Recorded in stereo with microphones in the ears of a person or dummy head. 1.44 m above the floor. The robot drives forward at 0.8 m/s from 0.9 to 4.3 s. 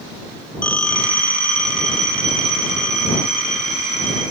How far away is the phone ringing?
About 1.2 m.